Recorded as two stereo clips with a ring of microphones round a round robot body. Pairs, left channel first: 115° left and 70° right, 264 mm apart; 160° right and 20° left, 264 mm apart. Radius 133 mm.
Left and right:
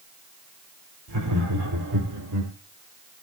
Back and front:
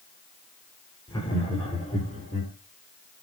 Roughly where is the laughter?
Right.